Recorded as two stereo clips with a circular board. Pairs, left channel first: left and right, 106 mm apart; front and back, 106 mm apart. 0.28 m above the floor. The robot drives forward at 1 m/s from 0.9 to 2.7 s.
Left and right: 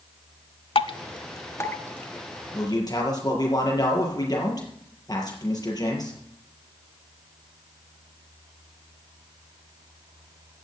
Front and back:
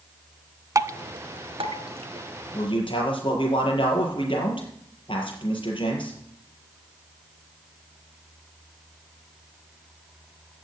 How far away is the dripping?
About 0.6 m.